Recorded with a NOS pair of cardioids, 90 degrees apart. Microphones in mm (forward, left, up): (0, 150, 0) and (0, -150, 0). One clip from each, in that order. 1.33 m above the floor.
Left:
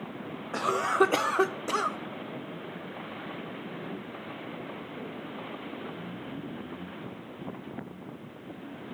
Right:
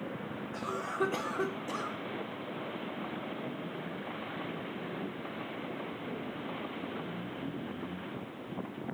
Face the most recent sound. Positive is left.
turn(degrees=45)